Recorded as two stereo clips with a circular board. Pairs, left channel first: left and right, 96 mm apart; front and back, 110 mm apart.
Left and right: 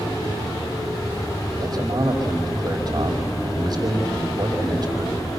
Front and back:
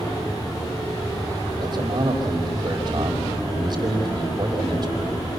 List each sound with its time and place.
1.6 s a man speaking: 135° right, 4.5 m